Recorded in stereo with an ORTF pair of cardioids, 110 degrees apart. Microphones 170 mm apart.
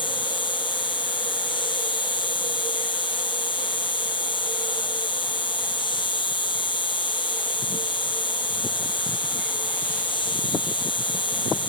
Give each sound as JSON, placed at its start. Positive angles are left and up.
{"t": 0.0, "sound": "an insect", "azimuth_deg": 30, "distance_m": 0.8}